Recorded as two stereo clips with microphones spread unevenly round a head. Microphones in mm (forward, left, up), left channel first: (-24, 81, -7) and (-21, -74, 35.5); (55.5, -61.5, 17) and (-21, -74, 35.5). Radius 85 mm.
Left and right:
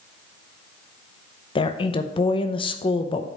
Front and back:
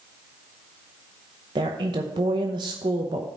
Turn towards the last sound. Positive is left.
turn(degrees=140)